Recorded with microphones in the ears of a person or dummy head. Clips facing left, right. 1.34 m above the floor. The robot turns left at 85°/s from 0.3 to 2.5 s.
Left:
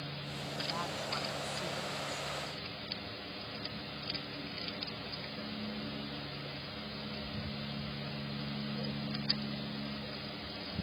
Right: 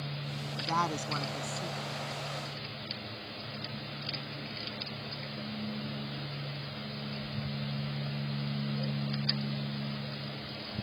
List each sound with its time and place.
0.6 s a woman speaking: 90° right; by 2.3 s 130° left